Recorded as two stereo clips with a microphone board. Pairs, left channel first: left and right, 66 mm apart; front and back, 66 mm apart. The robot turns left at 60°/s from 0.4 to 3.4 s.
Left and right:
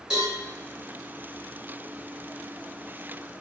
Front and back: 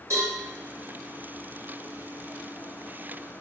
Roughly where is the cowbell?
Behind.